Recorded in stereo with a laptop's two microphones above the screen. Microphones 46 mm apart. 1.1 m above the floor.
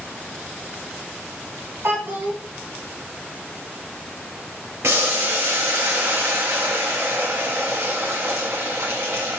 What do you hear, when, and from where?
1.8 s a child speaking: 55° right (ahead or behind), 1.8 m
4.8 s boiling: 60° right (ahead or behind), 0.7 m